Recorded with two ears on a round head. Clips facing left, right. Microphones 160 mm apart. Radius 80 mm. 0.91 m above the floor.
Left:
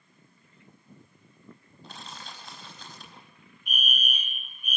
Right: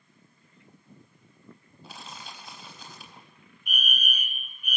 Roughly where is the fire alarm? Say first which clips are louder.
Even; left.